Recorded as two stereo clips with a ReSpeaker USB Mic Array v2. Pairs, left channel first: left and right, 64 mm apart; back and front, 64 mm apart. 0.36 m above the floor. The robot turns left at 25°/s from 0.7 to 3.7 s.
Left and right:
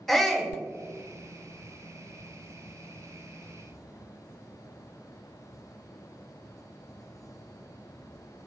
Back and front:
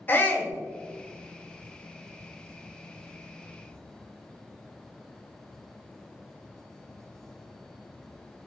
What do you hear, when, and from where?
0.1 s a shout: 170° left, 1.0 m